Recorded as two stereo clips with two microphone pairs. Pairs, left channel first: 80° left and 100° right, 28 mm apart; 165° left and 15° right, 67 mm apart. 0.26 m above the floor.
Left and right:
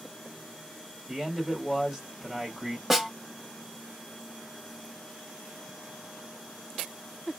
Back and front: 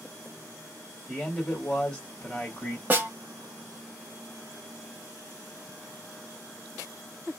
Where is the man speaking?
145° right, 1.7 m.